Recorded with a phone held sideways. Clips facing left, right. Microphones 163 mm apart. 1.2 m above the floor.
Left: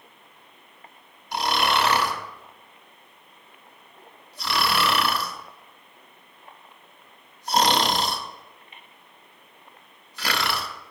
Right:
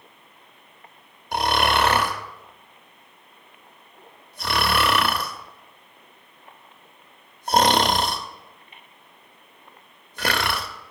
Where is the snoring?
45° right (ahead or behind), 0.9 m.